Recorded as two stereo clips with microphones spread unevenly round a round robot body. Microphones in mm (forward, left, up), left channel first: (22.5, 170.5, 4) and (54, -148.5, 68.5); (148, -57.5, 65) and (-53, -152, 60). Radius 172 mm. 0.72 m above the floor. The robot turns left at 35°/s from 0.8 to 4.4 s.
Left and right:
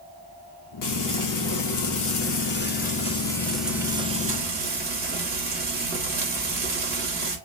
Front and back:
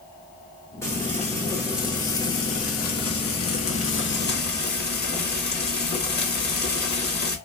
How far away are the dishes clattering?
No dishes clattering in this recording.